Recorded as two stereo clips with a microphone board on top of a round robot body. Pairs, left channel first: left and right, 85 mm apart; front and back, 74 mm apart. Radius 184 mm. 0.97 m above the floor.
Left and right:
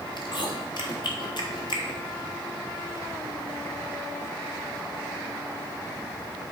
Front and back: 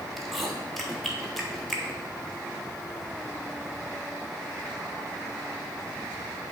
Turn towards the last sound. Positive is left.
turn(degrees=85)